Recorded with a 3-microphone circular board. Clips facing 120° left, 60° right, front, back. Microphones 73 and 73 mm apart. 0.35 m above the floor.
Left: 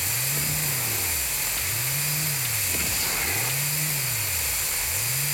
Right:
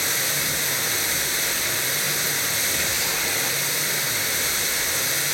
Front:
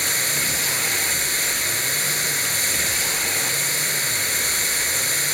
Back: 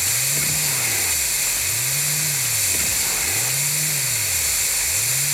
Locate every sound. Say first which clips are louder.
0.0 s running water: right 5 dB, front 3 dB; 40° right, 3 m